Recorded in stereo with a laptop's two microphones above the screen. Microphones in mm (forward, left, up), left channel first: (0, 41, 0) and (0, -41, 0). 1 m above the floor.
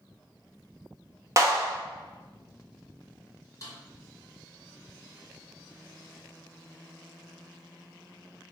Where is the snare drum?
40° left (ahead or behind), 1.0 m.